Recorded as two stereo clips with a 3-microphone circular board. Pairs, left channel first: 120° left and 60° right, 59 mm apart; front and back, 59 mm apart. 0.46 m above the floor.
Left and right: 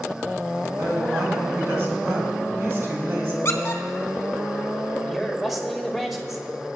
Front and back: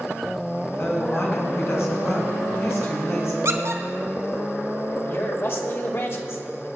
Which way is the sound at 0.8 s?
25° right.